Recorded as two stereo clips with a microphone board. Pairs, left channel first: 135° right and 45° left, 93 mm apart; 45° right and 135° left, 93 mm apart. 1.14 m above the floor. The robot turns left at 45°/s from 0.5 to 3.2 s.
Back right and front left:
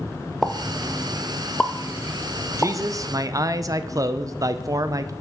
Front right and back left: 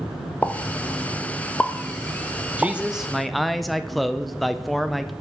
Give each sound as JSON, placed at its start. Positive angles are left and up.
{"t": 0.4, "sound": "a pop", "azimuth_deg": -45, "distance_m": 0.5}
{"t": 2.6, "sound": "a man speaking", "azimuth_deg": 70, "distance_m": 0.5}